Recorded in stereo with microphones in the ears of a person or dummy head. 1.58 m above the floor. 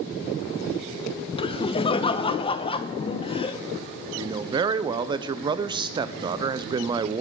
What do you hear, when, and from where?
1.4 s laughter: 30° left (ahead or behind), 0.7 m
4.2 s a man speaking: 20° right (ahead or behind), 0.5 m